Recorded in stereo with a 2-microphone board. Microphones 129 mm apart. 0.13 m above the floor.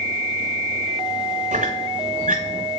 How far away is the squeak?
About 1.1 m.